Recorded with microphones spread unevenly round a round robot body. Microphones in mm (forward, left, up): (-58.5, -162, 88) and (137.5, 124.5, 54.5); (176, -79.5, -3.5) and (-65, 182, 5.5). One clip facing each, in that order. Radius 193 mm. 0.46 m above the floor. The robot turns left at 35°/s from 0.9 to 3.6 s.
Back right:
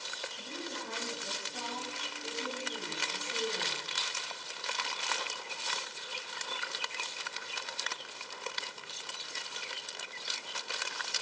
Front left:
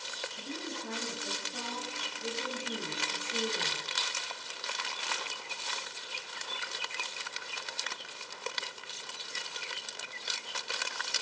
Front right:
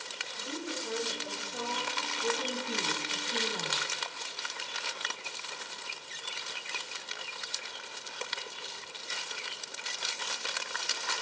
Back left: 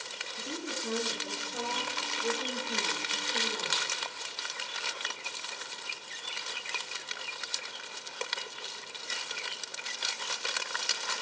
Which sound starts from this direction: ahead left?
A woman speaking, at 0.3 s.